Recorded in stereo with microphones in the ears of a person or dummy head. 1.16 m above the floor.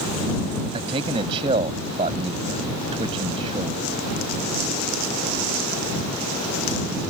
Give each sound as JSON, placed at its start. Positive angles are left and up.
{"t": 0.7, "sound": "a man speaking", "side_deg": -20}